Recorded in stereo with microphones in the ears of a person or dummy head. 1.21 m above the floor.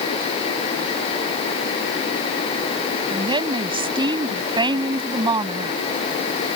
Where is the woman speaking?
25° right (ahead or behind).